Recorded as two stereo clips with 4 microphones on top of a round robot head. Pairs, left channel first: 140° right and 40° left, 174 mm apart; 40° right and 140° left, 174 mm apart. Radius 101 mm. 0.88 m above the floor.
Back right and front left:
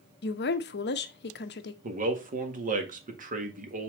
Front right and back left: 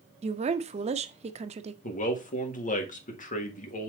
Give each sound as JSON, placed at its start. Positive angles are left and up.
{"t": 0.2, "sound": "a woman speaking", "azimuth_deg": -165, "distance_m": 0.7}
{"t": 1.8, "sound": "a man speaking", "azimuth_deg": 0, "distance_m": 1.7}